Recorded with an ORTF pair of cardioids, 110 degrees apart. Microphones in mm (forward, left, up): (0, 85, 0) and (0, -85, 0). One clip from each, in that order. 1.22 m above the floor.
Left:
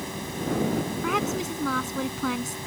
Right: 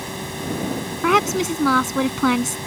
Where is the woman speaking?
60° right.